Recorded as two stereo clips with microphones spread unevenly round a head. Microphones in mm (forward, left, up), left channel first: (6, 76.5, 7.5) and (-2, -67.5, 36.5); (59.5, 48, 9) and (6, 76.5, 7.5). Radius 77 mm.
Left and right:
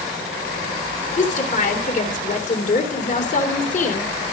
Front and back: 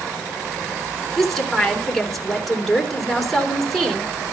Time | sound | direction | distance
1.2 | a woman speaking | 60° left | 3.5 m